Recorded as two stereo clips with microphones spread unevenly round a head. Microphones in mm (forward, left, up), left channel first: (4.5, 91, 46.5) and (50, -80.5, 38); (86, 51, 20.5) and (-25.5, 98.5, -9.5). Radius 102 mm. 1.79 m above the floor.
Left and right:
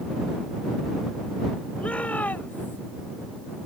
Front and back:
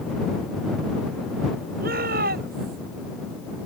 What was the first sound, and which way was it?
A shout, 170° right.